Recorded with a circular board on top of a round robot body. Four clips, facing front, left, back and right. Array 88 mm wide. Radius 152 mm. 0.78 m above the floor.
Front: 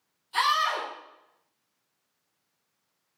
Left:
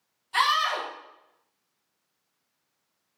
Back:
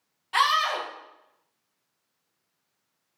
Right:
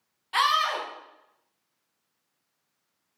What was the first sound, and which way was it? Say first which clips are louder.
A scream: even, back 2 dB; 140° right.